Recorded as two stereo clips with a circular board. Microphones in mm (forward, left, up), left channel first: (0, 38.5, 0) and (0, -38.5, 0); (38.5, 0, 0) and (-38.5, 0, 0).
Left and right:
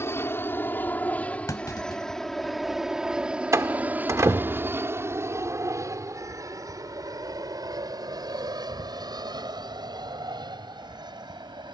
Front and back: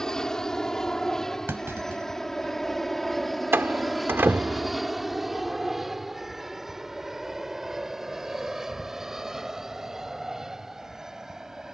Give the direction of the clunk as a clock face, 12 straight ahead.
8 o'clock.